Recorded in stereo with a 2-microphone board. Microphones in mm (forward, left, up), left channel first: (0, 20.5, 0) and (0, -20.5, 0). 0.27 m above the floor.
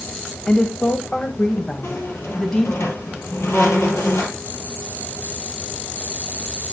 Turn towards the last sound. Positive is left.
turn(degrees=85)